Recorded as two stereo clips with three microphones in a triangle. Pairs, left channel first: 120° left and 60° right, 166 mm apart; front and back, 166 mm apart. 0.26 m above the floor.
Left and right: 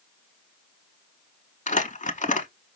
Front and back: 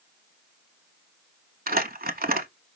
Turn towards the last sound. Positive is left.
turn(degrees=160)